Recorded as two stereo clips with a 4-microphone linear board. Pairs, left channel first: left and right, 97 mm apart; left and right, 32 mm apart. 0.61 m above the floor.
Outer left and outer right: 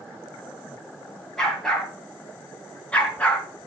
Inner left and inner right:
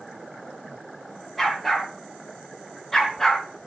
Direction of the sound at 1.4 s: 5° left (ahead or behind).